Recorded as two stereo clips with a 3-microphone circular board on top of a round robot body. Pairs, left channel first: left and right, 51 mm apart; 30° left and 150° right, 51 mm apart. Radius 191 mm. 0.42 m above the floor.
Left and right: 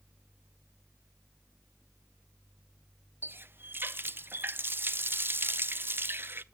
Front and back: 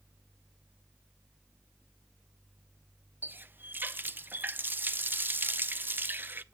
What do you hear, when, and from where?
3.2 s a running tap: 115° right, 0.9 m